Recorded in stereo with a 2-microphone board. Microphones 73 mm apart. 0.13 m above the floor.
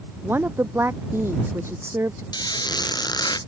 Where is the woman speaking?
30° right (ahead or behind); by 2.2 s 40° right (ahead or behind).